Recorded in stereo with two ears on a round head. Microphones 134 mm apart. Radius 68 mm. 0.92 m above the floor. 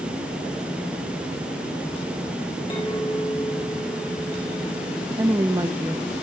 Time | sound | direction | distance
2.7 | a clink | 30° left (ahead or behind) | 3.5 m
5.2 | a woman speaking | 20° right (ahead or behind) | 0.6 m